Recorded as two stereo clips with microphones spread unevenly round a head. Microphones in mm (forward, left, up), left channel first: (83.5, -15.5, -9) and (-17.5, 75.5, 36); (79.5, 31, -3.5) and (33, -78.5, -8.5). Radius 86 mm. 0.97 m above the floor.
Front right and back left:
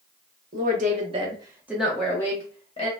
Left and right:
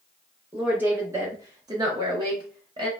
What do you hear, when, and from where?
0.5 s a woman speaking: 170° left, 0.9 m; by 2.9 s 65° right, 1.0 m